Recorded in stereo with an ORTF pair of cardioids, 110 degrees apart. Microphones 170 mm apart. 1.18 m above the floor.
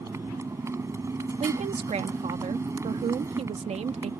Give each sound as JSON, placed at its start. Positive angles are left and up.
{"t": 0.0, "sound": "a motorcycle", "azimuth_deg": -20}
{"t": 1.4, "sound": "a woman speaking", "azimuth_deg": -40}